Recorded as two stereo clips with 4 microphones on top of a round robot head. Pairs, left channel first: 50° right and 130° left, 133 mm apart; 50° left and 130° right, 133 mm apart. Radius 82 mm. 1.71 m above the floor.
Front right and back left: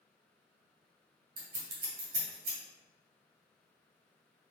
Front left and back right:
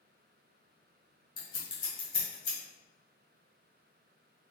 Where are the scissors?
110° left, 1.8 m.